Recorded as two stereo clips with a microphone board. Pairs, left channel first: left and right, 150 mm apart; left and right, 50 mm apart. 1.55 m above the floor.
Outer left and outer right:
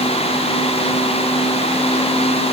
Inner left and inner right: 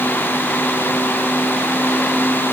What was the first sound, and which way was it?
Only background noise.